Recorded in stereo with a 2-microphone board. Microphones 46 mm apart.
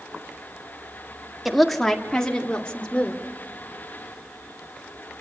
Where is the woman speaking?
Centre (ahead or behind), 1.6 m; by 3.2 s 30° left (ahead or behind), 3 m.